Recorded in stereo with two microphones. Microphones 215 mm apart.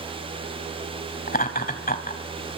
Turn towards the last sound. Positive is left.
turn(degrees=45)  # may be behind; listen again after turning